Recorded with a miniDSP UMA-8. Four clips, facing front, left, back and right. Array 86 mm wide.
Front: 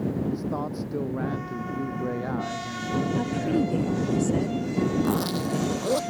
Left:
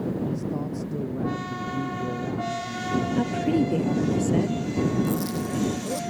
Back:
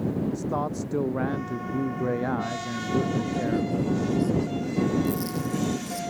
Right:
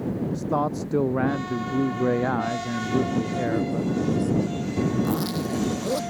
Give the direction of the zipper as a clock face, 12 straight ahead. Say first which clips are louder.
Right 1 dB, front 2 dB; 1 o'clock.